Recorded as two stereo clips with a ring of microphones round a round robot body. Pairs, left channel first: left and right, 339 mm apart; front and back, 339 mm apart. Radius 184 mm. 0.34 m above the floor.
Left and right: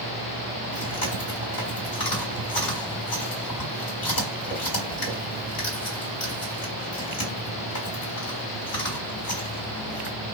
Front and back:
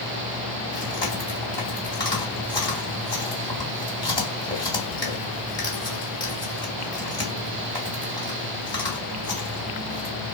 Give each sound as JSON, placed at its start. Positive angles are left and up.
{"t": 0.7, "sound": "chewing", "azimuth_deg": 75, "distance_m": 1.9}